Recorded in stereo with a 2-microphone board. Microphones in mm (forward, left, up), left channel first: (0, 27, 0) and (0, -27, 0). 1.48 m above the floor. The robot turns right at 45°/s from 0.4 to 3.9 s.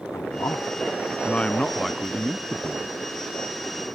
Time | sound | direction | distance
0.1 | a man speaking | 110° left | ?